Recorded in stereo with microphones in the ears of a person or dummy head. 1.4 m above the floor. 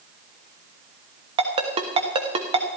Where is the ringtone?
30° right (ahead or behind), 1.2 m.